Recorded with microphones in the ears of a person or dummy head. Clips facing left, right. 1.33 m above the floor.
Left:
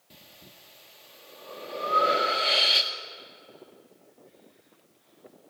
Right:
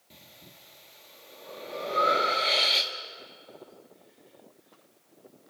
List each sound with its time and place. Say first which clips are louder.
0.1 s breathing: even; 5° left (ahead or behind), 1.6 m